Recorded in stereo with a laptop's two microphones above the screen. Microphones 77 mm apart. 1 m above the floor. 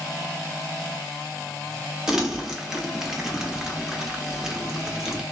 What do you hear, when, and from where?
2.1 s crumpling: 5° right (ahead or behind), 0.8 m